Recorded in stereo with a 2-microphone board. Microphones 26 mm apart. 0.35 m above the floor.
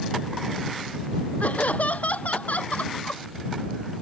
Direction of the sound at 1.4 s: 80° left.